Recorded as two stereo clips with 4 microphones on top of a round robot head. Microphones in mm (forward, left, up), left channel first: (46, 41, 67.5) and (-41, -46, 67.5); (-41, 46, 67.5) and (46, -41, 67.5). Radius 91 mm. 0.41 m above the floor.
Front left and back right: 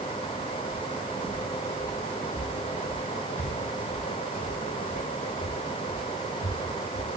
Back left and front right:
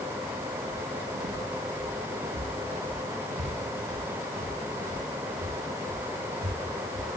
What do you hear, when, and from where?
0.7 s footsteps: 45° right, 1.8 m; by 7.2 s 25° right, 6.5 m